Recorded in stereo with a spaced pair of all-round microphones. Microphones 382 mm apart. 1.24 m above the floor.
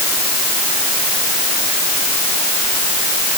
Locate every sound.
Only background noise.